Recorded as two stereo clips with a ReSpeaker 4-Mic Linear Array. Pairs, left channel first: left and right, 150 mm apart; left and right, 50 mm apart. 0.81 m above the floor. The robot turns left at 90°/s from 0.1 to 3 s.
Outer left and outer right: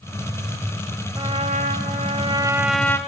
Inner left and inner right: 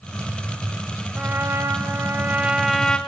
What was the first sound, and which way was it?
A trumpet, 35° right.